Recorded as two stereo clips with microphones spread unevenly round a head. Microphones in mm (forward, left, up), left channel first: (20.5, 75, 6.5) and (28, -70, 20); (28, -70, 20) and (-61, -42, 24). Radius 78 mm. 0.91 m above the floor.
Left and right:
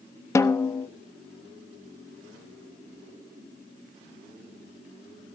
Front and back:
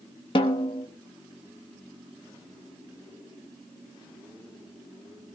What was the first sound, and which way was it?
A snare drum, 25° left.